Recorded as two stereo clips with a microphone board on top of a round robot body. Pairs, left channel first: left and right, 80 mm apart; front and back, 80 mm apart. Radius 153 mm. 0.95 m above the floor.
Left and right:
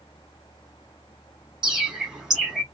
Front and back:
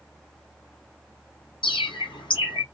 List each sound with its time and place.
1.6 s a bird: 10° right, 2.5 m